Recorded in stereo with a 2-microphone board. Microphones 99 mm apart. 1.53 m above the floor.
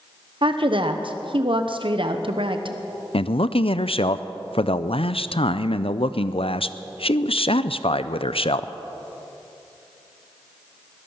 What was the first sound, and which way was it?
A woman speaking, 60° right (ahead or behind).